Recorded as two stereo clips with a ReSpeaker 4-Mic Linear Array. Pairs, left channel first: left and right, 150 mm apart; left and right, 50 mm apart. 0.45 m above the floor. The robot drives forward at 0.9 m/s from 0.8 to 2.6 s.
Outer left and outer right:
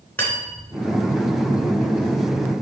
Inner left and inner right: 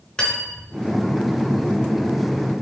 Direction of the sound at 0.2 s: 15° left (ahead or behind).